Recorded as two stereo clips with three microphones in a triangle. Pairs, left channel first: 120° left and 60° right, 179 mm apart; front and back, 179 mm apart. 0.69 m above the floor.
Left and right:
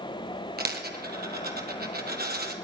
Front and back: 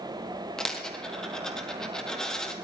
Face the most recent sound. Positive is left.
turn(degrees=-85)